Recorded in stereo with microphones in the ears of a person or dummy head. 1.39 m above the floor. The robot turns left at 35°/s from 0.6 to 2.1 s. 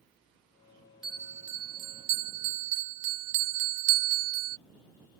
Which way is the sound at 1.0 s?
5° right.